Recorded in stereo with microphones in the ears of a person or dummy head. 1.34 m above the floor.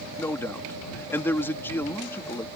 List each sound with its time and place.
0.2 s a man speaking: 15° left (ahead or behind)